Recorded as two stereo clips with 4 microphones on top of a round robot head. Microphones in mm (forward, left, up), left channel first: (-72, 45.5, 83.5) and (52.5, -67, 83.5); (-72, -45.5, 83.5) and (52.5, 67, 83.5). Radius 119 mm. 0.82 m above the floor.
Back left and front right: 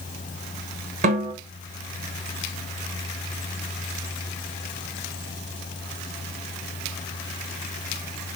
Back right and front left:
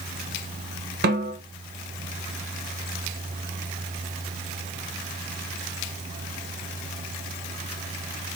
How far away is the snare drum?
About 1.1 m.